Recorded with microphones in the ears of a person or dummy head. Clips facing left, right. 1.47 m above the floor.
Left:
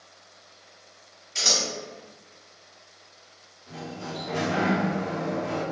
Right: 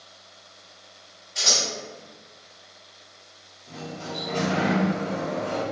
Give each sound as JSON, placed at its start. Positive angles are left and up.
{"t": 1.4, "sound": "scissors", "side_deg": 40, "distance_m": 1.1}
{"t": 3.7, "sound": "a sliding door", "side_deg": 5, "distance_m": 1.7}